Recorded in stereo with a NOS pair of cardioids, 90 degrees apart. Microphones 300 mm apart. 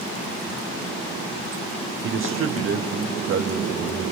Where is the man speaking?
40° right, 0.8 m; by 4.1 s 55° right, 2 m.